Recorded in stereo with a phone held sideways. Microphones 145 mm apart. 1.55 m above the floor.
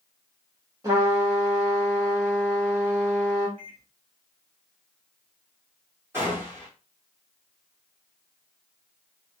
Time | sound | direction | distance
0.8 | a trumpet | 25° right (ahead or behind) | 1.7 m
3.6 | a microwave | 40° right (ahead or behind) | 1.5 m
6.1 | a gunshot | 20° right (ahead or behind) | 2.5 m